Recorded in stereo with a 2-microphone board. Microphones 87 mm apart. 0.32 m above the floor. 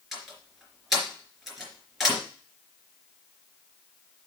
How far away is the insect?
No insect in this recording.